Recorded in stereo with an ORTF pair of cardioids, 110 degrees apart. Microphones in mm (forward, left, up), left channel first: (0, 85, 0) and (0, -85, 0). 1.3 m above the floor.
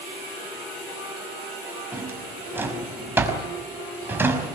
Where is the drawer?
15° right, 5 m.